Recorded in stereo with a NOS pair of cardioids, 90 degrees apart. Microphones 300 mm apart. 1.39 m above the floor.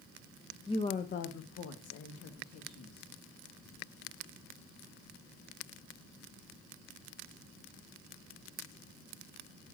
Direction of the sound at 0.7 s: 15° left.